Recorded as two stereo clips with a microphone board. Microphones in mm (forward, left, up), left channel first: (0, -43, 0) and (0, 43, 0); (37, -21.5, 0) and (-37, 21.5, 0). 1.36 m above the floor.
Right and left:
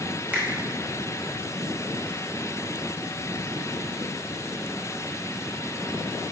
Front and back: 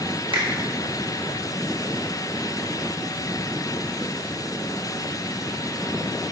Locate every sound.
0.3 s a finger snap: 160° left, 0.9 m